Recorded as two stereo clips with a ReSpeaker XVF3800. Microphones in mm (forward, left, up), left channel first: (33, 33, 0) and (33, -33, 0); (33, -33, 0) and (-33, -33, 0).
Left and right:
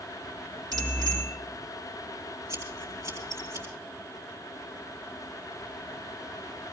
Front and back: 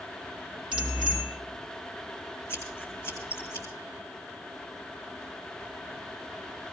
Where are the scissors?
50° right, 7 m.